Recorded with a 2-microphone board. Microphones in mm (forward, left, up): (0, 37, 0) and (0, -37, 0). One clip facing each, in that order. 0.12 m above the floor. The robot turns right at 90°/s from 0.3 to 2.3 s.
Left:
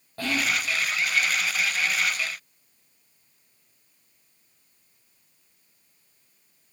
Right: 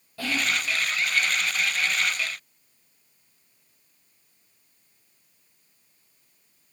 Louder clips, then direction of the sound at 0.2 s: Left 1 dB; 40° left (ahead or behind).